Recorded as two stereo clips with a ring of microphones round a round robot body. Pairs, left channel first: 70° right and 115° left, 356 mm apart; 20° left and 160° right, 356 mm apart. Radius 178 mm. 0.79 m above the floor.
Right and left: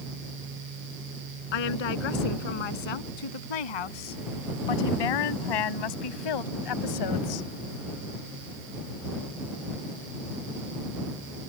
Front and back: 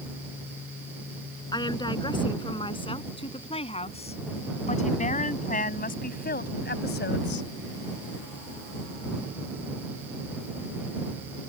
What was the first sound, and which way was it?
A woman speaking, 55° right.